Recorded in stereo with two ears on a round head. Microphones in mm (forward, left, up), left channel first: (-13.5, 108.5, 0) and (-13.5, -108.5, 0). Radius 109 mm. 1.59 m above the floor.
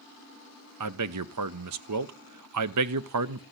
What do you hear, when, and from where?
0.8 s a man speaking: 75° right (ahead or behind), 0.8 m